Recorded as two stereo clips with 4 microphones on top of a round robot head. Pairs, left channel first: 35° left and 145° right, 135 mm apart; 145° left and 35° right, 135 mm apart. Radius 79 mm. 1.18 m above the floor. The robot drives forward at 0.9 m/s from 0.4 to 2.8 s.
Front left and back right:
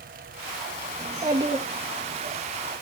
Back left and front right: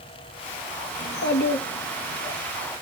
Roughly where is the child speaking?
Behind left.